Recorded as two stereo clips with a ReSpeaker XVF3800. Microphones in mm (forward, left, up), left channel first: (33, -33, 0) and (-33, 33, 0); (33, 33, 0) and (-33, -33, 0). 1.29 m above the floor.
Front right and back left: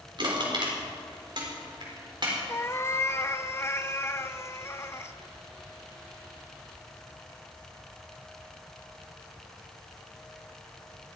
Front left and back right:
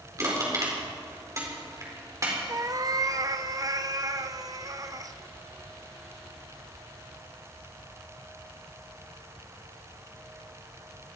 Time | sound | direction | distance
0.2 | crushing | 170° left | 4.5 m
2.5 | a cat meowing | 100° right | 0.8 m